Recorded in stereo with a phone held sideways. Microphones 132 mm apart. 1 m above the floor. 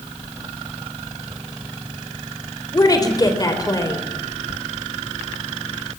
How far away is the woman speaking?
About 3.5 m.